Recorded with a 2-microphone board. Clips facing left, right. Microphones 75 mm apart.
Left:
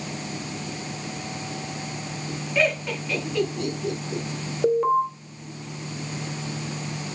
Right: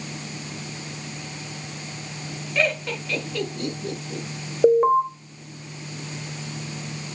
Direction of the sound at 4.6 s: 25° right (ahead or behind).